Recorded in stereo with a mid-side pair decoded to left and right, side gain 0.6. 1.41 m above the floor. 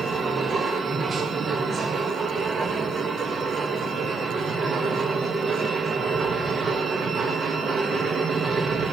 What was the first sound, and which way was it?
A machine running, 30° right.